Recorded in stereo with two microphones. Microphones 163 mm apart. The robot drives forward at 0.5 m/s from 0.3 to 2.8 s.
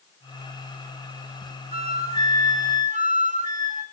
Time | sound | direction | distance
1.7 | a flute | 40° right (ahead or behind) | 1.6 m